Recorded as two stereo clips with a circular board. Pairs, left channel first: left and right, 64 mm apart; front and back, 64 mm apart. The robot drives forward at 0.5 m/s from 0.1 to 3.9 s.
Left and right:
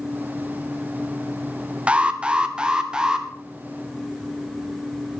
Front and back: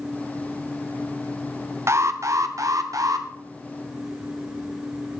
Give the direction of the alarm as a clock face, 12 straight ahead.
5 o'clock.